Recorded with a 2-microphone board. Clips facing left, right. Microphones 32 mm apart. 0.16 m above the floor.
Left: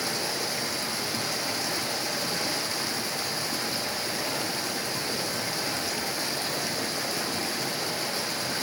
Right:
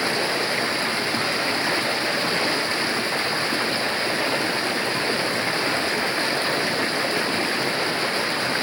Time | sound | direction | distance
0.0 | running water | 40° right (ahead or behind) | 1.0 m